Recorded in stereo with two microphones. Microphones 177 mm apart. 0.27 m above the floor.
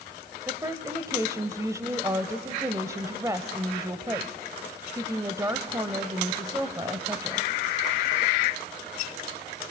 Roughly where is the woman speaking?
Centre.